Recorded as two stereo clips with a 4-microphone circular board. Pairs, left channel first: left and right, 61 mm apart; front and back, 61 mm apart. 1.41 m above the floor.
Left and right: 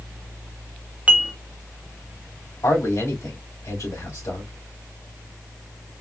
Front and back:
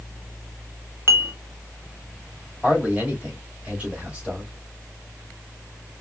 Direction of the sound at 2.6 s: 110° left.